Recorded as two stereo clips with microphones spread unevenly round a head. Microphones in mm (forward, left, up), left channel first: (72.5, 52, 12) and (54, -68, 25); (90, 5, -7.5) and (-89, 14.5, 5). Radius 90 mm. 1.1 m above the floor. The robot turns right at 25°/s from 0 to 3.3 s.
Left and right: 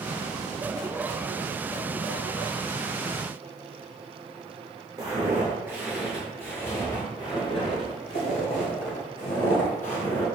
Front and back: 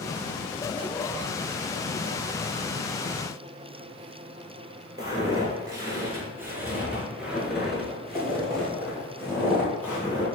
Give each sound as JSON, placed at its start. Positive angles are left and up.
{"t": 5.0, "sound": "footsteps", "azimuth_deg": -130, "distance_m": 1.3}